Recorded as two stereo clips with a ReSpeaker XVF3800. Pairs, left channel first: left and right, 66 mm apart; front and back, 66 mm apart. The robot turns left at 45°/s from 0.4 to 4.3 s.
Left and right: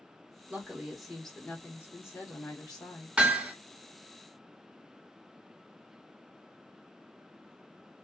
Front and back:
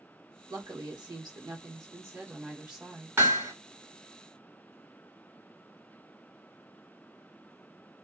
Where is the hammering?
155° right, 1.4 m; by 3.5 s 170° right, 1.4 m.